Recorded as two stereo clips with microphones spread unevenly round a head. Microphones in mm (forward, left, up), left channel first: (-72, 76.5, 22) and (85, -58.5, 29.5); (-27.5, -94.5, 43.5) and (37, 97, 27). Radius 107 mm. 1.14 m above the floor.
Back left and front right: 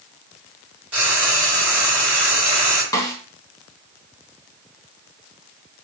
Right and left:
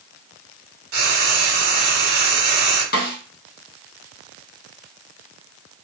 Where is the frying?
45° left, 1.6 m.